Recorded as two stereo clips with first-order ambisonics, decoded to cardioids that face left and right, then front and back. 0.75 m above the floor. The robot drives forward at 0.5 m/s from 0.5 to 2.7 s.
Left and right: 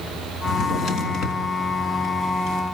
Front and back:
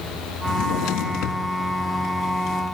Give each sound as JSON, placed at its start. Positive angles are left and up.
{"t": 0.5, "sound": "a drawer", "azimuth_deg": 30, "distance_m": 2.5}